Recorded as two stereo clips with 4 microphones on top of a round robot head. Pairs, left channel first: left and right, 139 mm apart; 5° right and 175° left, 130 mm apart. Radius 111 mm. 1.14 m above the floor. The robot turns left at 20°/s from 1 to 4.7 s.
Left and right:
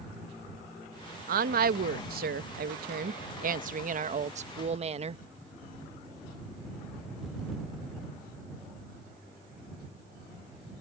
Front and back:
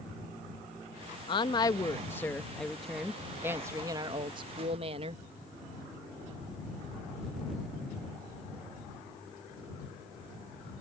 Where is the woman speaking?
65° right; by 5.2 s 135° right.